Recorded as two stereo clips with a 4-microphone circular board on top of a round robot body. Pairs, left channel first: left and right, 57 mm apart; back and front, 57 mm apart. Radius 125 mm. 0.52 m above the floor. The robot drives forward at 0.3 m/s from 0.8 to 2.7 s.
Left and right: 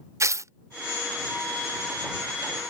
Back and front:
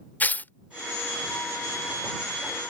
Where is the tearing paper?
120° right.